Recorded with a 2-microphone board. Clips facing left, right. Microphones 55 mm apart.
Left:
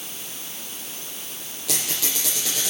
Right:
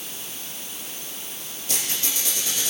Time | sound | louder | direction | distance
1.7 | a squeak | left 2 dB | 80° left | 5 m